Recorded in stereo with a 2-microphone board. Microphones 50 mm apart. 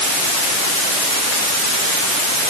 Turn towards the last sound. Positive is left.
No sound to turn to.